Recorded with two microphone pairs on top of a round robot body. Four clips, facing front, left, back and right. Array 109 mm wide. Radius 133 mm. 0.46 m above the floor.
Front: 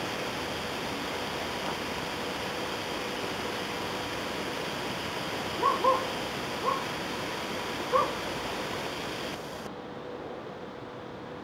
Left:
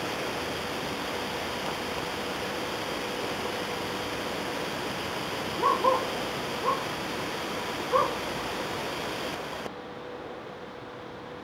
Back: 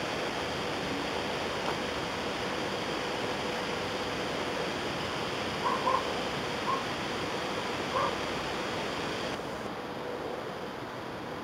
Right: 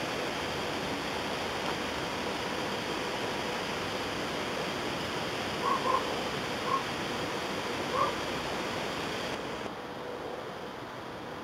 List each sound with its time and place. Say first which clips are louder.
5.6 s a dog barking: left 6 dB, front 4 dB; 35° left, 7 m